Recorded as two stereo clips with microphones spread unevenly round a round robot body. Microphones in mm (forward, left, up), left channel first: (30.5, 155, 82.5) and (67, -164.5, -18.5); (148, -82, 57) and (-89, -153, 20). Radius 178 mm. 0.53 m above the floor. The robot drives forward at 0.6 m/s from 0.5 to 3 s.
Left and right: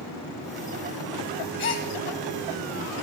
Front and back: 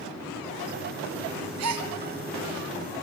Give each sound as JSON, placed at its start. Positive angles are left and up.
{"t": 1.6, "sound": "a gasp", "azimuth_deg": 155, "distance_m": 1.4}